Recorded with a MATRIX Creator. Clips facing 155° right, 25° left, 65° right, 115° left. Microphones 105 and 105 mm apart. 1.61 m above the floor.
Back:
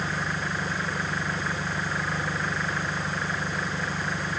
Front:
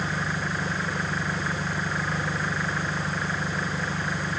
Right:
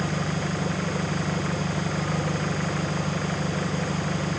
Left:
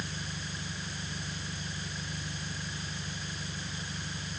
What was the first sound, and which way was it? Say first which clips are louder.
An engine running: front 1 dB, right 13 dB; 65° right.